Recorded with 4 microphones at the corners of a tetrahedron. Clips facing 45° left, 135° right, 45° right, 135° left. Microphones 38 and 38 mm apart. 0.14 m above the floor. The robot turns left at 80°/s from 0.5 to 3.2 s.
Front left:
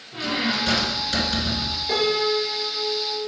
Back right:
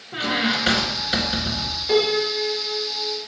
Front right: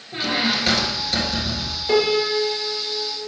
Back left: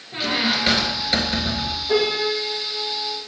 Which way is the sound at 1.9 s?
60° right.